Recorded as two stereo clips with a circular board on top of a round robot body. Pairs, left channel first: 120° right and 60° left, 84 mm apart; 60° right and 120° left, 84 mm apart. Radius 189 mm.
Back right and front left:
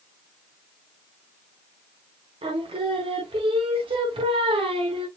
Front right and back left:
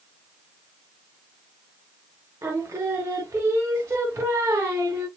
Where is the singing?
60° left, 0.5 m.